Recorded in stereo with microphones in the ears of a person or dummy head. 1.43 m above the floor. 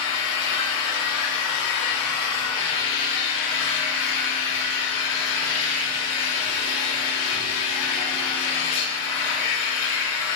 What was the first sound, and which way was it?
An engine running, 65° left (ahead or behind).